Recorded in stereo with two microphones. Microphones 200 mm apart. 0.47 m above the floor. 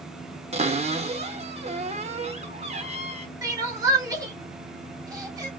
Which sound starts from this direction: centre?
Crying, at 3.4 s.